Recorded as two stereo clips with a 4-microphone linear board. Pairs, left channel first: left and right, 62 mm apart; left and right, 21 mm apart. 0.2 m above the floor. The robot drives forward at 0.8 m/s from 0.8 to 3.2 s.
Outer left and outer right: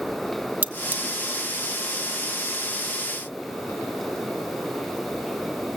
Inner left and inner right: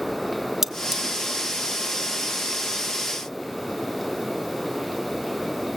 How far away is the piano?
I don't hear a piano.